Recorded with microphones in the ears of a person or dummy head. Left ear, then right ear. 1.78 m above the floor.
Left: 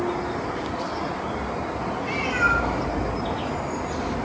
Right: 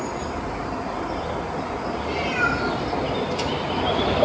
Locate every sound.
2.0 s a cat meowing: 70° left (ahead or behind), 6 m